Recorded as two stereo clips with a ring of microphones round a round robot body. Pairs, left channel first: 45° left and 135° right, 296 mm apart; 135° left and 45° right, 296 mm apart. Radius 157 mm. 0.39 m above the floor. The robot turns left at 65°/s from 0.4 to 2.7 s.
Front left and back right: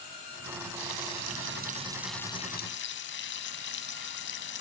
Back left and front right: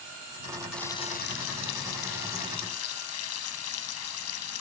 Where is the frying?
140° right; by 4.6 s 95° left.